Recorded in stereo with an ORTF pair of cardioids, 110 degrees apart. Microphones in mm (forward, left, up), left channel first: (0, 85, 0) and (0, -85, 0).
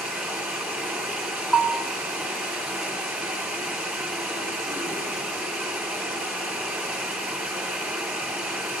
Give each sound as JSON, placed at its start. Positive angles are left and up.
{"t": 0.0, "sound": "running water", "azimuth_deg": -10, "distance_m": 3.5}
{"t": 1.5, "sound": "a bell", "azimuth_deg": 0, "distance_m": 1.1}